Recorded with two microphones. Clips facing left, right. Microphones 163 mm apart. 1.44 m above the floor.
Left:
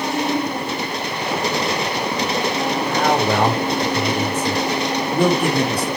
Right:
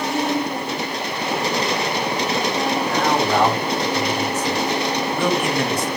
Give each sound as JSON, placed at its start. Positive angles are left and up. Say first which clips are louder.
{"t": 2.9, "sound": "a man speaking", "louder": "left 3 dB", "side_deg": 60, "distance_m": 4.5}